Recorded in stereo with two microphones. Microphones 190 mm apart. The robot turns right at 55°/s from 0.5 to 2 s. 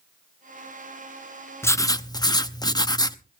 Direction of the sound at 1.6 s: 15° left (ahead or behind).